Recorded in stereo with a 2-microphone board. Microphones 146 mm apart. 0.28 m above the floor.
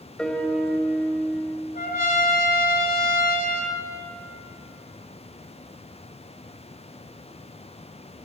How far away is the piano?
About 0.7 m.